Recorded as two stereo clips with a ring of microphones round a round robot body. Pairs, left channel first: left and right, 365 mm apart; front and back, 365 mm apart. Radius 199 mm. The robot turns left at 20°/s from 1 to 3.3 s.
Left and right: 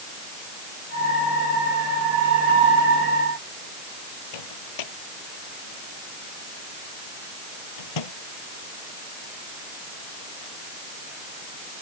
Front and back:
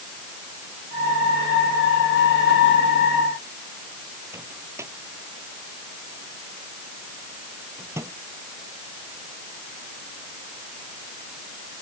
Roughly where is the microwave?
Left.